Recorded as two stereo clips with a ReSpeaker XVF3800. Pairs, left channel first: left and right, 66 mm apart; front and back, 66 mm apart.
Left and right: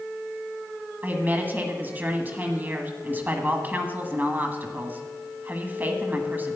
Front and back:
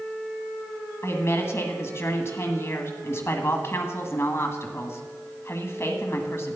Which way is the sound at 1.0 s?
35° right.